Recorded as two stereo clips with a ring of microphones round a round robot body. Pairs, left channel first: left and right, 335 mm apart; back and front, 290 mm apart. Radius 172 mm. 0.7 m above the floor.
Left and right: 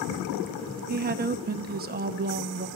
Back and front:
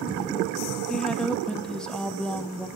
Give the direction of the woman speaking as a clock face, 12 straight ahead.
3 o'clock.